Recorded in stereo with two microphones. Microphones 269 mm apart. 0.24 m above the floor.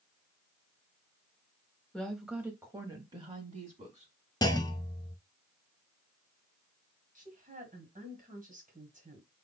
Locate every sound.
1.9 s a woman speaking: 5° left (ahead or behind), 1.0 m; by 4.1 s 25° right (ahead or behind), 1.8 m
4.4 s a clunk: 15° left (ahead or behind), 0.5 m
7.2 s a woman speaking: 30° right (ahead or behind), 1.5 m